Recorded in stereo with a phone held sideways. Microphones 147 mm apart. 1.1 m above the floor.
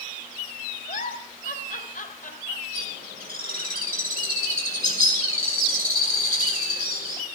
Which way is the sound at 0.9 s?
70° left (ahead or behind).